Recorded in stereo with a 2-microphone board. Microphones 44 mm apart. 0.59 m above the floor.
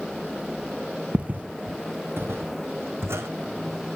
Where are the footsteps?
35° right (ahead or behind), 0.7 m; by 3.3 s 75° right (ahead or behind), 2 m.